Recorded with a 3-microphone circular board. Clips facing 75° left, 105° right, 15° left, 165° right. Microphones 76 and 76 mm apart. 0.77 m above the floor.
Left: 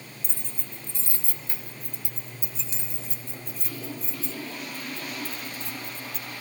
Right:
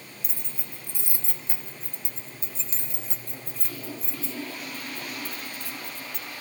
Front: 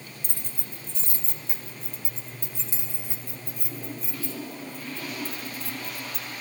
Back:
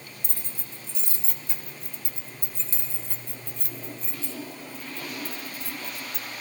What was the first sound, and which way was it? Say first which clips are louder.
Keys jangling: left 1 dB, front 1 dB; 15° right.